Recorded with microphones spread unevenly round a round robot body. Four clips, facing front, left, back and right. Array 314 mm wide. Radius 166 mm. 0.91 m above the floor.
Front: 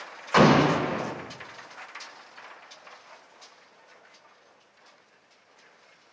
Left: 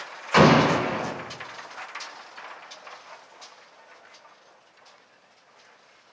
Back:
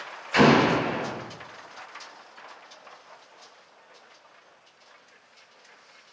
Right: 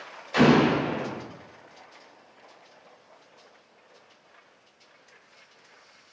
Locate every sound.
0.3 s an explosion: 65° left, 1.8 m